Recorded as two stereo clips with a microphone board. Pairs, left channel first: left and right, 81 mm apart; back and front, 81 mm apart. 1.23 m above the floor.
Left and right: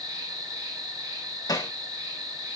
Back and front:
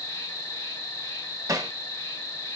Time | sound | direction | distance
0.0 | an insect | 125° right | 2.5 m
1.5 | hammering | 45° left | 1.2 m